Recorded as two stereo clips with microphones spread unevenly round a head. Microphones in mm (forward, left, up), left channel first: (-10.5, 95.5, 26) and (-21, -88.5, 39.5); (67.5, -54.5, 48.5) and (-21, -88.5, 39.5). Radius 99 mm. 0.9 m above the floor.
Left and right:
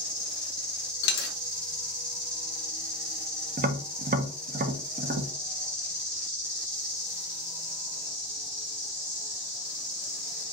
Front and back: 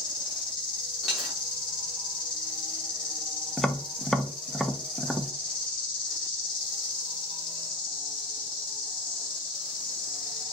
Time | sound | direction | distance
0.0 | an insect | 15° right | 1.2 m
1.0 | a dropped coin | 105° left | 0.5 m
3.6 | tapping | 75° right | 0.6 m